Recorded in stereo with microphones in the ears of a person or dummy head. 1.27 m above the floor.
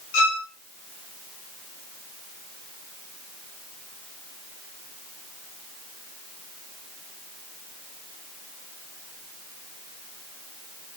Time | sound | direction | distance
0.1 | a violin | 70° left (ahead or behind) | 2.5 m